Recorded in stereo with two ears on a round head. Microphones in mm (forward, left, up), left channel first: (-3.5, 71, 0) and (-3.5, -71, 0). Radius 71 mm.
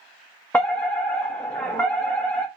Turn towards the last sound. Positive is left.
turn(degrees=10)  # may be behind; listen again after turning